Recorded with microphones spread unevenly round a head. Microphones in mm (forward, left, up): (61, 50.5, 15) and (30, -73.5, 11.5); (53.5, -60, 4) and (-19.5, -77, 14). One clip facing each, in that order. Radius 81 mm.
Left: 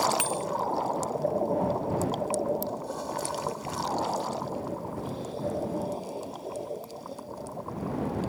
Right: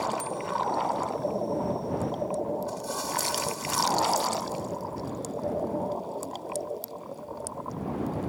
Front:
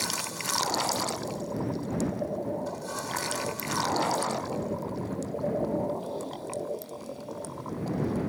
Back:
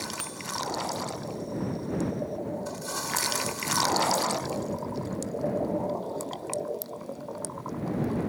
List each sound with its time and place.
0.2 s a bicycle bell: 120° left